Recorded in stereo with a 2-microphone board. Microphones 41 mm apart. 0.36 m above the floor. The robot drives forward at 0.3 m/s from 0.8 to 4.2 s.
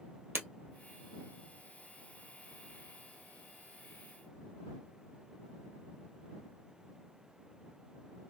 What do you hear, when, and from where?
0.3 s breaking glass: 55° right (ahead or behind), 1.7 m